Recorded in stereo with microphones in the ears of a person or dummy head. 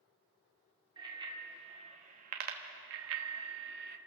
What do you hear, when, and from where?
1.0 s a bicycle bell: 25° right (ahead or behind), 2 m; by 4.0 s 55° right (ahead or behind), 1.1 m